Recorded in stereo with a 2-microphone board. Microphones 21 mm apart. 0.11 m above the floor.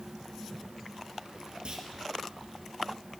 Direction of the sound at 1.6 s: 60° right (ahead or behind).